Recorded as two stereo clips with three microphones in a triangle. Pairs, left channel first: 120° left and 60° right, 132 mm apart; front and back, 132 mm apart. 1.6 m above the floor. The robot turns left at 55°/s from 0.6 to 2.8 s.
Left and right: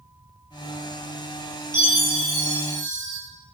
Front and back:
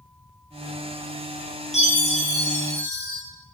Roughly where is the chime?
Ahead.